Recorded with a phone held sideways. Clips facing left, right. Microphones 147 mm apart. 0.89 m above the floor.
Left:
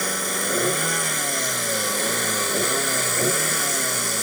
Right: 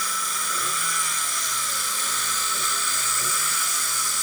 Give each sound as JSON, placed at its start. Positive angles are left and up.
{"t": 0.0, "sound": "a vehicle", "side_deg": 55}